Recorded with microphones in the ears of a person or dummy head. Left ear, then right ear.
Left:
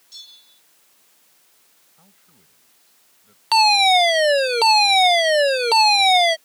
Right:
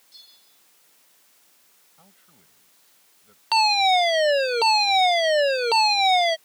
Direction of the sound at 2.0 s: 15° right (ahead or behind).